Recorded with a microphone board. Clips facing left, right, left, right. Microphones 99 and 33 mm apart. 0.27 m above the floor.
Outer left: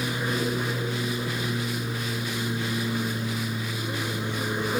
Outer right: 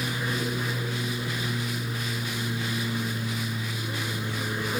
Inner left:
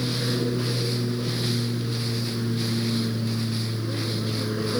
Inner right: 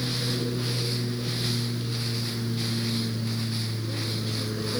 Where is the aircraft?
20° left (ahead or behind).